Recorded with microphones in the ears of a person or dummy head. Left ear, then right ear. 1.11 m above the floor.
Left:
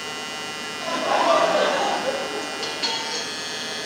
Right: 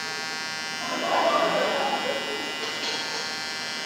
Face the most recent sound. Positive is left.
turn(degrees=20)  # may be behind; listen again after turning